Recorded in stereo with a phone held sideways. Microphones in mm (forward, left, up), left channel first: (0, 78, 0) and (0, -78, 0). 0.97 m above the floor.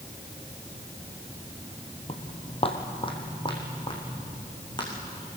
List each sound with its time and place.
2.1 s footsteps: 40° left (ahead or behind), 1.8 m; by 4.9 s 30° left (ahead or behind), 5.5 m